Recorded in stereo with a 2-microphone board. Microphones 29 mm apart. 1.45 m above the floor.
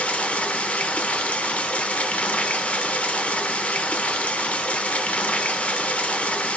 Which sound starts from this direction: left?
Running water, at 0.0 s.